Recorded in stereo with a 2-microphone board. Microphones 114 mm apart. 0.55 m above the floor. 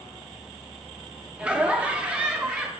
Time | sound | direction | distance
1.4 | laughter | 10° right (ahead or behind) | 0.9 m